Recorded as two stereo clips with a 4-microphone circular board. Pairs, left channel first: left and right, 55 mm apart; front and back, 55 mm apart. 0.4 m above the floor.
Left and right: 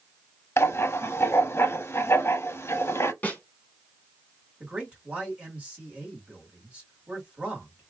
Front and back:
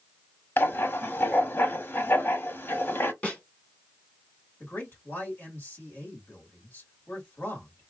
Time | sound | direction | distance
0.6 | writing | 50° left | 0.6 m
3.2 | a snare drum | 50° left | 1.5 m
4.6 | a man speaking | 35° right | 1.9 m